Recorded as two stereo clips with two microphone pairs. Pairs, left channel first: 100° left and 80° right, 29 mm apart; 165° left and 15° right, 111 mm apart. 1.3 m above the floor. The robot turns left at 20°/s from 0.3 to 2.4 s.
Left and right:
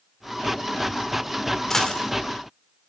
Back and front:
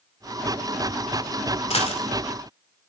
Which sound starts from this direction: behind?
A dropped coin, at 1.7 s.